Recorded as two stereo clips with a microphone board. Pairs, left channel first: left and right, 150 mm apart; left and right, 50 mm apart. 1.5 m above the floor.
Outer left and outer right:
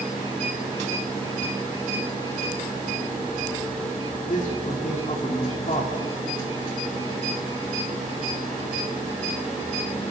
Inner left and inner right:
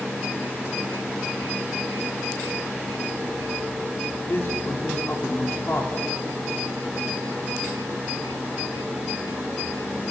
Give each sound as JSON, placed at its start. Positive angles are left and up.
{"t": 4.3, "sound": "a man speaking", "side_deg": 65, "distance_m": 4.5}